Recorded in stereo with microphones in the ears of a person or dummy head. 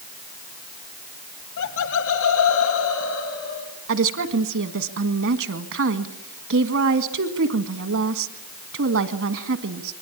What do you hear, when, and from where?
1.6 s laughter: 70° left (ahead or behind), 1.5 m; by 3.7 s 75° left (ahead or behind), 3.5 m
3.9 s a woman speaking: 65° right (ahead or behind), 1.5 m